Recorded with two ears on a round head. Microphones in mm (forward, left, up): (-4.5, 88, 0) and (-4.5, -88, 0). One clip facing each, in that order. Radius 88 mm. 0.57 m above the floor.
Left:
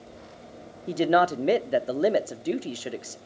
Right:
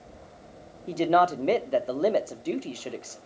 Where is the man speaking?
15° left (ahead or behind), 0.8 m.